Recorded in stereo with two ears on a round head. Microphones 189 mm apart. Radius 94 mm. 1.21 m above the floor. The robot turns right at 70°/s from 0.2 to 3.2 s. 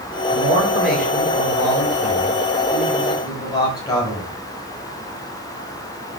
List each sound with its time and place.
0.3 s a man speaking: 40° right, 7.5 m; by 4.3 s 160° left, 7.5 m